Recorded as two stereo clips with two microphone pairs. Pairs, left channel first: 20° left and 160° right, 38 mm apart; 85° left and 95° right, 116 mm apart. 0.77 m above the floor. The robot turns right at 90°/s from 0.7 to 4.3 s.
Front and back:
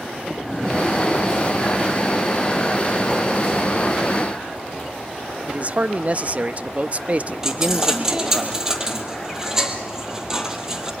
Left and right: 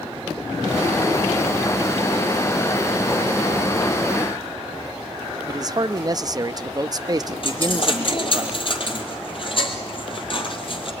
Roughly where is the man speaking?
Behind right.